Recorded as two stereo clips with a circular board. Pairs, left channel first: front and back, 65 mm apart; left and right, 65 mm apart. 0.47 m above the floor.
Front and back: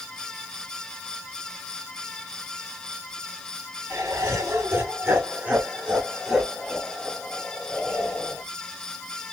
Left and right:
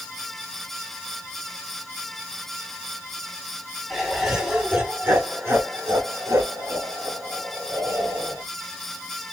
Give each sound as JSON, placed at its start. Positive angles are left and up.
{"t": 3.9, "sound": "laughter", "azimuth_deg": -170, "distance_m": 1.7}